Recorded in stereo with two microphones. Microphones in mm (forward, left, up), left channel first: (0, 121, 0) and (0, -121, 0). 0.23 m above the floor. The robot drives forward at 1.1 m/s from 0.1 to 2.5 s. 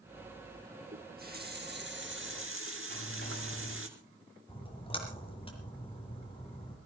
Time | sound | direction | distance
0.9 | a running tap | 35° right (ahead or behind) | 3.5 m
2.9 | a dropped coin | 45° left (ahead or behind) | 7.5 m
4.5 | a splash | 20° left (ahead or behind) | 4 m